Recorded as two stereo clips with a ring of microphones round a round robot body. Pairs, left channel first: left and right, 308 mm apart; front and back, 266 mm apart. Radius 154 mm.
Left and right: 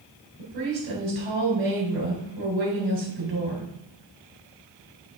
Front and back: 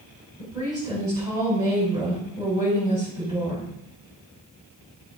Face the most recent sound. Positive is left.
turn(degrees=-105)